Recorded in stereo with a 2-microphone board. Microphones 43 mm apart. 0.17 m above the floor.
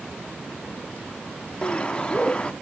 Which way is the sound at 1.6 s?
20° left (ahead or behind).